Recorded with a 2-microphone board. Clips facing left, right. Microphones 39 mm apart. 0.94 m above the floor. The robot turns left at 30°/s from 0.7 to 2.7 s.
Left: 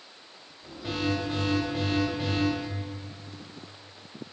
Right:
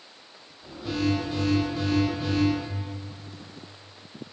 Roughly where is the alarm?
Behind left.